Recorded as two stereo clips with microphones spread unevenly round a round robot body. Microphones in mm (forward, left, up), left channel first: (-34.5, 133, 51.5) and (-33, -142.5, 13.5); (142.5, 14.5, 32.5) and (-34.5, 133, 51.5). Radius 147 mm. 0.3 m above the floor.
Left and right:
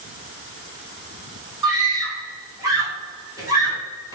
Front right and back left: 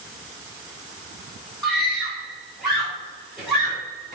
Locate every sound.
1.6 s a scream: 110° right, 1.4 m